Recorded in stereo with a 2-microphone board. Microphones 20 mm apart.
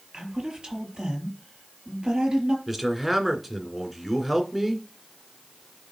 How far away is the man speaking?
About 2 m.